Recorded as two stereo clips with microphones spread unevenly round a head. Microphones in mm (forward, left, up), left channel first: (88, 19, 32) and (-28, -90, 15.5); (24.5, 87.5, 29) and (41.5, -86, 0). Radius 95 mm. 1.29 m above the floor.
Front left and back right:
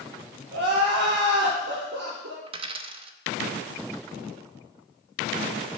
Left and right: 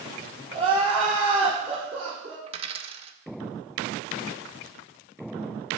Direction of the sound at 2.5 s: 125° right.